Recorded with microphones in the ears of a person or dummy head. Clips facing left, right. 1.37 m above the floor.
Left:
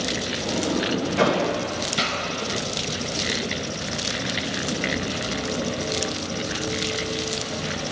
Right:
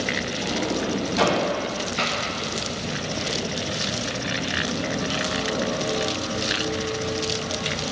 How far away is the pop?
About 1.4 m.